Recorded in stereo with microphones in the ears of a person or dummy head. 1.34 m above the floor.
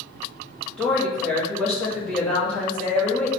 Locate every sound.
0.8 s a woman speaking: 5° left (ahead or behind), 1.6 m